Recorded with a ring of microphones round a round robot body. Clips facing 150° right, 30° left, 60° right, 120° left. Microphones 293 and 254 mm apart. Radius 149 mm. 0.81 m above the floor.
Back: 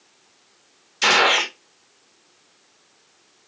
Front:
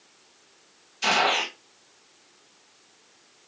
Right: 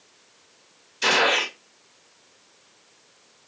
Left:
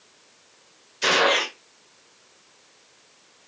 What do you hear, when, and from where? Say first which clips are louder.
1.0 s a gunshot: back 5 dB, left 2 dB; 145° right, 1.0 m